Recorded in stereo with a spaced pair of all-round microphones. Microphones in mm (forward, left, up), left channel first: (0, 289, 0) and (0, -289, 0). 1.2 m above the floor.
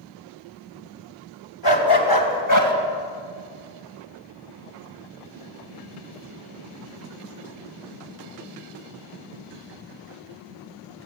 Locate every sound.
1.6 s a dog barking: 45° left (ahead or behind), 3.5 m; by 2.7 s 30° left (ahead or behind), 3.5 m